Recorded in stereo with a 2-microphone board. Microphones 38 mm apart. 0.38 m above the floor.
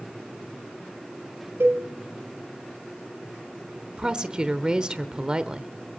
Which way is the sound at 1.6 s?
85° right.